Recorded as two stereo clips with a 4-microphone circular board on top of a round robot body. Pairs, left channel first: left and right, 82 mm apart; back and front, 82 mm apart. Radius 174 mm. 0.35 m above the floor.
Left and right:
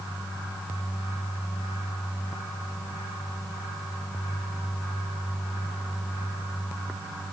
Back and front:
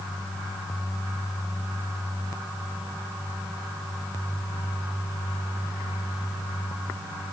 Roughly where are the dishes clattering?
No dishes clattering in this recording.